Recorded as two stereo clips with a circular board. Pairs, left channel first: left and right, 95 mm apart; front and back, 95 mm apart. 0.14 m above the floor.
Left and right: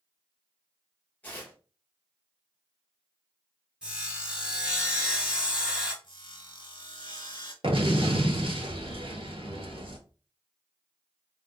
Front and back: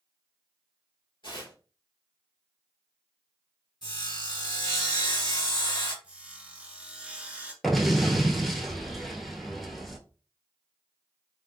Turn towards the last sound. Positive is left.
turn(degrees=-90)